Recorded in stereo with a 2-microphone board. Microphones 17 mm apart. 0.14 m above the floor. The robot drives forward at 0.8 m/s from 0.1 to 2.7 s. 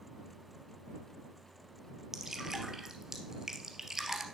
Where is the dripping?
25° right (ahead or behind), 2 m; by 4.2 s 30° right (ahead or behind), 1.7 m.